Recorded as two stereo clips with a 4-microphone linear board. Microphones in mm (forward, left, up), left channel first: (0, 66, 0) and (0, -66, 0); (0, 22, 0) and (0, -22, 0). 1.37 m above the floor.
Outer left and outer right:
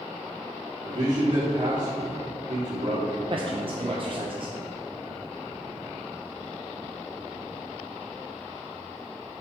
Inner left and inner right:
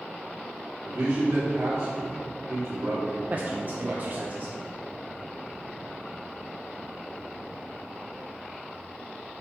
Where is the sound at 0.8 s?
65° right (ahead or behind), 3 m.